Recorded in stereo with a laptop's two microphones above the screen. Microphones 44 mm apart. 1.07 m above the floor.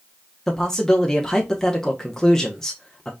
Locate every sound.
0.5 s a man speaking: 10° left (ahead or behind), 1.0 m